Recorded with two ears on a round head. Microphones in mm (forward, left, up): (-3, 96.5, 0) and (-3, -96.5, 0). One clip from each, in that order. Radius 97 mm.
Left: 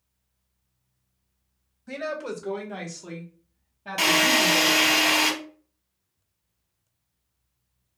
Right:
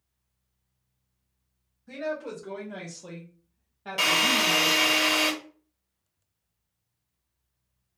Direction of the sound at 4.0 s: 5° left (ahead or behind).